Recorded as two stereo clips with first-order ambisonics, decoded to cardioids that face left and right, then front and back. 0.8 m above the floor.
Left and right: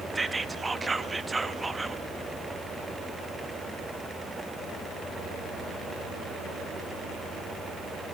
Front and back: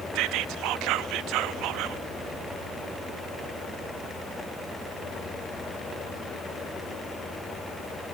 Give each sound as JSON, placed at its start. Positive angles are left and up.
{"t": 0.1, "sound": "whispering", "azimuth_deg": -170, "distance_m": 0.7}